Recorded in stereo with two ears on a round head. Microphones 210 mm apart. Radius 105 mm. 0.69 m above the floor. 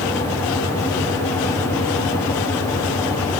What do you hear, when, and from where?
Only background noise.